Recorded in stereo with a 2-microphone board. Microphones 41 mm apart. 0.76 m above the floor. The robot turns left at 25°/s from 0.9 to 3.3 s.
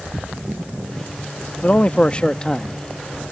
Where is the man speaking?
35° left (ahead or behind); by 2.8 s 15° left (ahead or behind).